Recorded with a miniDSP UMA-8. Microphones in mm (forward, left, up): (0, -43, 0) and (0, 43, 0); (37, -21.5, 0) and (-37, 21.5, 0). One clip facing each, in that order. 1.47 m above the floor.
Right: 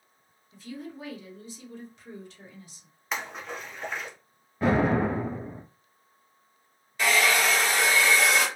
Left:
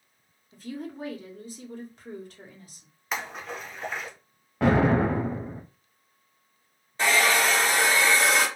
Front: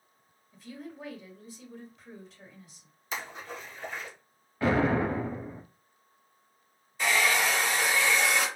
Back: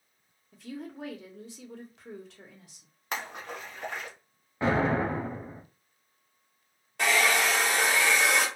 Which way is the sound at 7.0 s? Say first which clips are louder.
Left 1 dB, back 1 dB; 150° left.